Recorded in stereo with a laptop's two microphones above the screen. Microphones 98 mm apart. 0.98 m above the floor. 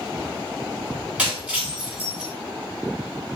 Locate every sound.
1.2 s breaking glass: 15° right (ahead or behind), 3 m